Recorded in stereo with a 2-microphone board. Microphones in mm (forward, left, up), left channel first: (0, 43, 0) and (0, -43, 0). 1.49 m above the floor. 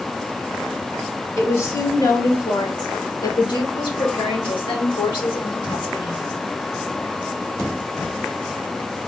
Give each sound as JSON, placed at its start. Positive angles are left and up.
{"t": 1.4, "sound": "a woman speaking", "side_deg": 35, "distance_m": 2.5}